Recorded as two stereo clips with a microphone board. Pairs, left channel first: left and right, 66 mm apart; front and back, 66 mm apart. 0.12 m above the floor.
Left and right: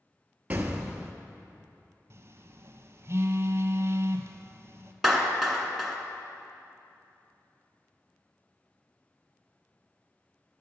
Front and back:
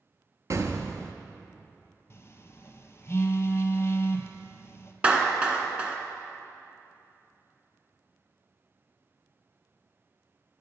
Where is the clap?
175° right, 0.8 m.